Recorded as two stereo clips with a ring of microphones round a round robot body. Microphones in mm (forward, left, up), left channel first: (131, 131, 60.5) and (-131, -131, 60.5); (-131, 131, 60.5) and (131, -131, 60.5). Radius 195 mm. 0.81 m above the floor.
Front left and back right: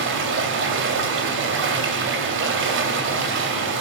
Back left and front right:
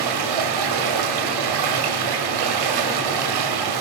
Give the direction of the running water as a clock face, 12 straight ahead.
2 o'clock.